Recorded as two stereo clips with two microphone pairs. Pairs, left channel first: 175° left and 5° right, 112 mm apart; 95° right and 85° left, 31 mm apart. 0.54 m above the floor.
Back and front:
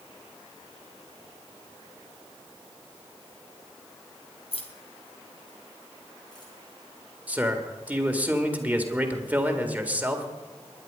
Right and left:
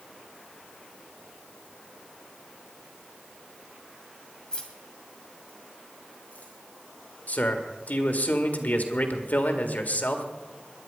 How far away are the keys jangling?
About 2 m.